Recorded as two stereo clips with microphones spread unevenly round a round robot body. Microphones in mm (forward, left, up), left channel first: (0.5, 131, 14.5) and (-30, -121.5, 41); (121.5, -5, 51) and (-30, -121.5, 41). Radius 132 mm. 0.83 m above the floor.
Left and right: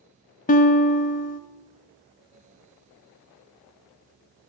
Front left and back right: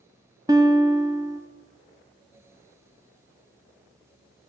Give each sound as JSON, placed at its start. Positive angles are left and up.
{"t": 0.5, "sound": "a guitar", "azimuth_deg": 140, "distance_m": 0.9}